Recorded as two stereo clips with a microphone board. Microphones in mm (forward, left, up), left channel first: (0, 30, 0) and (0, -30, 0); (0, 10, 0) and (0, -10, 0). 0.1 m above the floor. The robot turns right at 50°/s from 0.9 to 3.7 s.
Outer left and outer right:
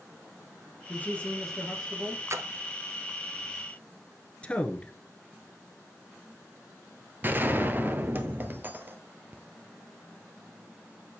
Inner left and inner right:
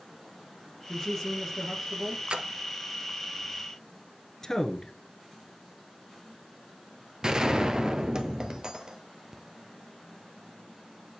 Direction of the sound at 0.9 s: 140° left.